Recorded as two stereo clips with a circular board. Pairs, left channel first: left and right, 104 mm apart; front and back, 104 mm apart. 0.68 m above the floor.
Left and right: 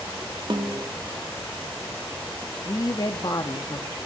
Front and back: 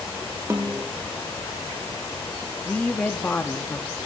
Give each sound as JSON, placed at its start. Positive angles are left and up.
{"t": 0.5, "sound": "a snare drum", "azimuth_deg": -120, "distance_m": 0.9}
{"t": 2.6, "sound": "a woman speaking", "azimuth_deg": 70, "distance_m": 0.8}